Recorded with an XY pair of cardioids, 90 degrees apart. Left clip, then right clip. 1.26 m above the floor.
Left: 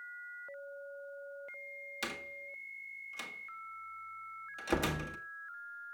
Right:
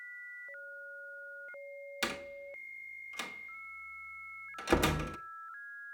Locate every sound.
2.0 s a door slam: 30° right, 1.9 m